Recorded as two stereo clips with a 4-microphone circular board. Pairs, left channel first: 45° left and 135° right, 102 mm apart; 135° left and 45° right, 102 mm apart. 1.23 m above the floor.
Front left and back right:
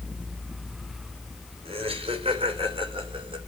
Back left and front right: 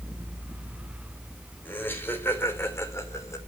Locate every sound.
1.6 s laughter: 155° right, 4 m; by 3.4 s 165° right, 3.5 m